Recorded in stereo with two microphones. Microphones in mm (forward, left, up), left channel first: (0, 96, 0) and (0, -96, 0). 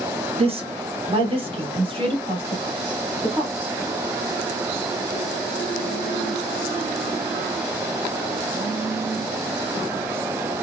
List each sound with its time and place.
0.4 s a woman speaking: 30° right (ahead or behind), 0.9 m; by 3.7 s 25° right (ahead or behind), 2.5 m